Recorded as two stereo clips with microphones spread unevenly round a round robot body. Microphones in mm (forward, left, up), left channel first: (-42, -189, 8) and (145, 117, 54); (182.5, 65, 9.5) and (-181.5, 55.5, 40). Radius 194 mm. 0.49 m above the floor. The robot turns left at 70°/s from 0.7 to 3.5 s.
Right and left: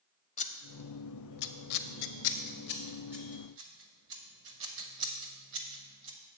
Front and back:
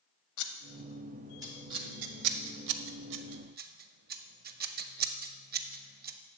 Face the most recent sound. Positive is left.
turn(degrees=115)